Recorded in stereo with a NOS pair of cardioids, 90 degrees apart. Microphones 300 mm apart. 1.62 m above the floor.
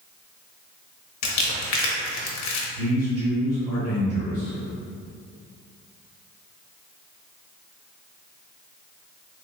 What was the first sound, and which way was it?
Crumpling, 65° left.